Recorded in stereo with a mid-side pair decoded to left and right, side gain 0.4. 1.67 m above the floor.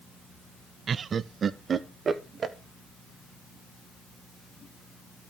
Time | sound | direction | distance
0.9 | laughter | 55° right | 0.5 m